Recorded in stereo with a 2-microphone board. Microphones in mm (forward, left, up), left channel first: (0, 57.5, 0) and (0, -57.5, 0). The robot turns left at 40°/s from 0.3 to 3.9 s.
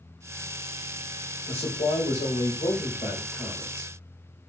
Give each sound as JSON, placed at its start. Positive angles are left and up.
{"t": 1.5, "sound": "a man speaking", "azimuth_deg": 120, "distance_m": 2.0}